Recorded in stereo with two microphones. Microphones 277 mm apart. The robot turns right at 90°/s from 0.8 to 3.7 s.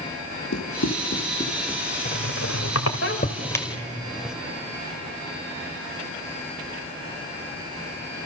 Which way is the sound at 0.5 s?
65° left (ahead or behind).